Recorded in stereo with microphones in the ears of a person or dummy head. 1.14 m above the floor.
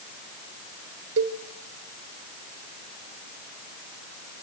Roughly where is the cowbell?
Right.